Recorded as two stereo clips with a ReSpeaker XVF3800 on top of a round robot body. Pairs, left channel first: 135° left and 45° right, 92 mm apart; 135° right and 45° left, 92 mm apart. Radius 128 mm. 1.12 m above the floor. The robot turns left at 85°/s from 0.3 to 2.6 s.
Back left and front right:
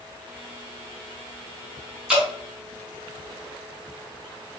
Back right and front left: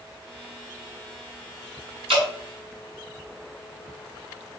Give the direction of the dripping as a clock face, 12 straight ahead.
11 o'clock.